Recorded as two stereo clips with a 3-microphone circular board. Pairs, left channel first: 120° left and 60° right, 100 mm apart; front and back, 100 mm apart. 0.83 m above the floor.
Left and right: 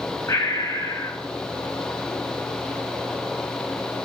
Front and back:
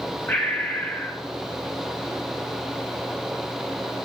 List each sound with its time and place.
0.3 s breathing: 65° left, 1.4 m